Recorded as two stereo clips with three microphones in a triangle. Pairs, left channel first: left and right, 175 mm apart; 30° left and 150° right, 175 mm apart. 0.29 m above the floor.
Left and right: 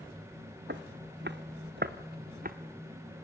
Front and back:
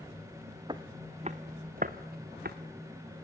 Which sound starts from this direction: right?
Footsteps, at 0.7 s.